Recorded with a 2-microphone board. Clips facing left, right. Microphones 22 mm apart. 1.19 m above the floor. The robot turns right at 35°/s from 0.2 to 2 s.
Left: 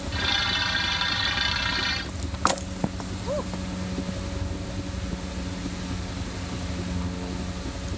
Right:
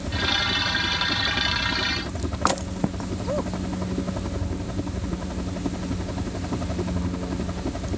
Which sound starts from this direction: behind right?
A helicopter, at 0.0 s.